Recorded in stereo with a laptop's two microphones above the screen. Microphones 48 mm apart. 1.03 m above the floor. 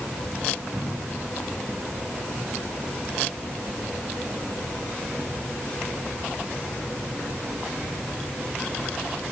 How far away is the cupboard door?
About 1.8 m.